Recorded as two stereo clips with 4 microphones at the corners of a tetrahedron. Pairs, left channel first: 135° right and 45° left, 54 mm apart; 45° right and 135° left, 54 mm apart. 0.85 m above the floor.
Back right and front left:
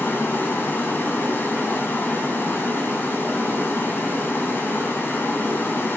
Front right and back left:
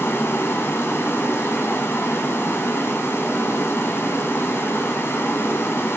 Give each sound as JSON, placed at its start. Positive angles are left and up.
{"t": 0.0, "sound": "running water", "azimuth_deg": -85, "distance_m": 2.0}